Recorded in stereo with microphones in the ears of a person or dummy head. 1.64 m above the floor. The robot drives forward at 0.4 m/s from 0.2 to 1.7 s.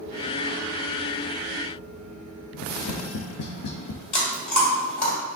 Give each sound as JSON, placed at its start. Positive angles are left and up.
{"t": 2.5, "sound": "tapping", "side_deg": 65, "distance_m": 0.6}
{"t": 4.1, "sound": "chewing", "side_deg": 60, "distance_m": 3.0}